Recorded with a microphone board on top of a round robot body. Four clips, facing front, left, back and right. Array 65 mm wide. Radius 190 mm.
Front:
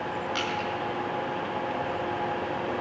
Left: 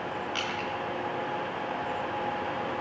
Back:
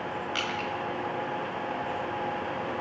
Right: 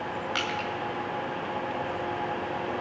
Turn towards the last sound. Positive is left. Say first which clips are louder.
# right 2 dB, front 1 dB
turn(degrees=-100)